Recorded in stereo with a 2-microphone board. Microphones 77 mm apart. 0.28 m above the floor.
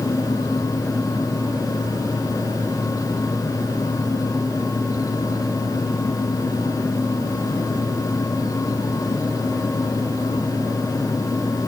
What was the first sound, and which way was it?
Only background noise.